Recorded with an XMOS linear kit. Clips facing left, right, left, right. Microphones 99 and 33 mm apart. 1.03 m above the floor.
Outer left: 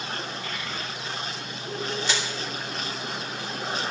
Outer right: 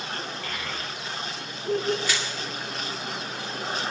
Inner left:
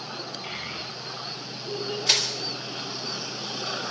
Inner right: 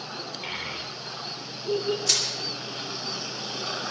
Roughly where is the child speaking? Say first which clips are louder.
Even, inner right 4 dB; right.